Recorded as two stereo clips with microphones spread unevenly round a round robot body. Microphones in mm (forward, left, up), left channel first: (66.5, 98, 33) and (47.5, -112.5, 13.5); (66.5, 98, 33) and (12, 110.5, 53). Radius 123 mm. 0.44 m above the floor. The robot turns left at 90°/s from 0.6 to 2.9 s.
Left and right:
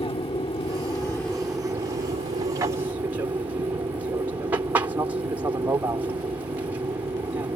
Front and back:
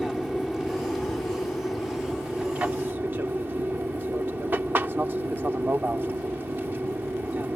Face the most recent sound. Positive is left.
turn(degrees=-150)